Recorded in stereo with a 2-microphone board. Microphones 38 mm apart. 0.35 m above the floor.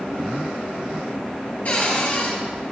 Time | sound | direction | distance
1.6 | a cupboard door | 40° left (ahead or behind) | 3 m